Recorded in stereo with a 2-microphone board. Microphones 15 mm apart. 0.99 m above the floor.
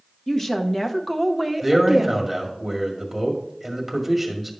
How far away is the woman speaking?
About 1.1 m.